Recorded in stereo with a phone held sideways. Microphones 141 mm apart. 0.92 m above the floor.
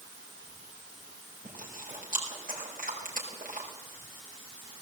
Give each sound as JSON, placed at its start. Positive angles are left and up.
{"t": 1.4, "sound": "chewing", "side_deg": -75, "distance_m": 5.0}